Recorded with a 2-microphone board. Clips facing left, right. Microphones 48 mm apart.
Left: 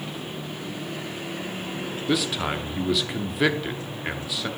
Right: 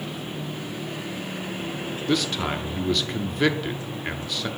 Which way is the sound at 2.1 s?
Centre (ahead or behind).